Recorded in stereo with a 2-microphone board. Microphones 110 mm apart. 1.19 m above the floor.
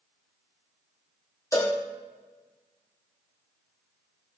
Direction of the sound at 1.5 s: 30° left (ahead or behind).